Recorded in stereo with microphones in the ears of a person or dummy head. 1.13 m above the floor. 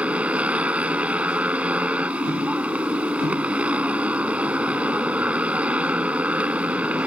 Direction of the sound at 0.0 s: 10° right (ahead or behind).